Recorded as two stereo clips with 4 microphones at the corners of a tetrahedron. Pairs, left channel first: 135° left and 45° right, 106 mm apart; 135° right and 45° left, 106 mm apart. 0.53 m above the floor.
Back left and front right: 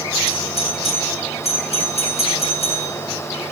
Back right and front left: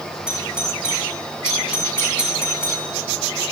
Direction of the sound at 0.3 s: 125° left.